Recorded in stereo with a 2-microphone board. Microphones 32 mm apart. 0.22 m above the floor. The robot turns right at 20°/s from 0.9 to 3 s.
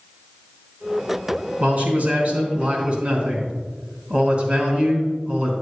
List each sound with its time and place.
1.6 s a man speaking: 55° right (ahead or behind), 2 m; by 5.5 s 40° right (ahead or behind), 2 m